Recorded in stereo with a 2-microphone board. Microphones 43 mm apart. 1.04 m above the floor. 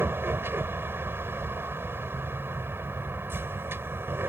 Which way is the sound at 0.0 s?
65° right (ahead or behind).